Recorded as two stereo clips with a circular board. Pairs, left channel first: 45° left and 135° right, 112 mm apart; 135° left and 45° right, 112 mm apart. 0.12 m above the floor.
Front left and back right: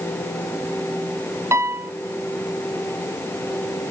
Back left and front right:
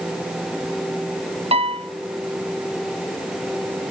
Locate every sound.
1.5 s a piano: 70° right, 0.7 m